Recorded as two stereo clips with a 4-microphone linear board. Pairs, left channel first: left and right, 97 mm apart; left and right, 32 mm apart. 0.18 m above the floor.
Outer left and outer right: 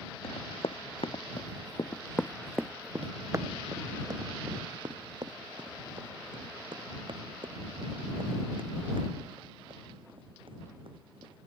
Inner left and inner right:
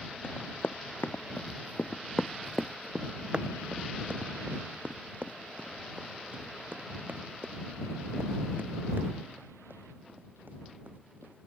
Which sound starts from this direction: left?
Running footsteps, at 0.2 s.